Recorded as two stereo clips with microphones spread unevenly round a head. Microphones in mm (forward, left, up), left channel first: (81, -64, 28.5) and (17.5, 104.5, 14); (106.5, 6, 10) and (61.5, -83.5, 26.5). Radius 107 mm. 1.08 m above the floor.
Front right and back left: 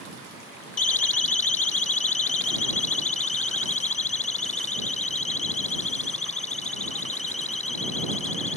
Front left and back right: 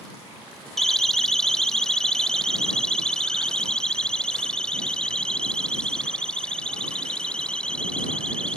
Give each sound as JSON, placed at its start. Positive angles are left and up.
{"t": 0.8, "sound": "a siren", "azimuth_deg": -25}